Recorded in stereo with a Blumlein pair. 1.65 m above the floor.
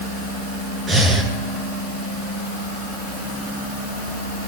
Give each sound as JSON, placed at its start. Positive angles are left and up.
{"t": 0.9, "sound": "breathing", "azimuth_deg": -20, "distance_m": 9.5}